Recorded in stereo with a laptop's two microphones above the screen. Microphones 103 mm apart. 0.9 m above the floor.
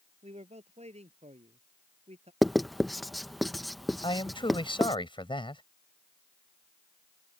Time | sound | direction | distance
0.2 | a man speaking | 85° right | ?
2.4 | writing | centre (ahead or behind) | ?
4.0 | a man speaking | 50° left (ahead or behind) | ?